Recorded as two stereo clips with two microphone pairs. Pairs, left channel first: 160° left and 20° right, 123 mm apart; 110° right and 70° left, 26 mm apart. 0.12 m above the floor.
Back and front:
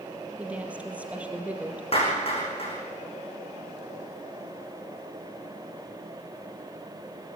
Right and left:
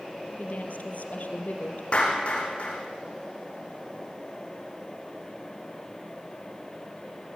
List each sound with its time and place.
0.4 s a woman speaking: 95° right, 3 m
1.9 s a clap: 160° right, 7.5 m